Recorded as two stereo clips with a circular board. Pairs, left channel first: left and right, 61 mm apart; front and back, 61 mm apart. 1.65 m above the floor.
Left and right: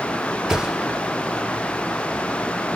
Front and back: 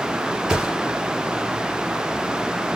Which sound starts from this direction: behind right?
A thud, at 0.5 s.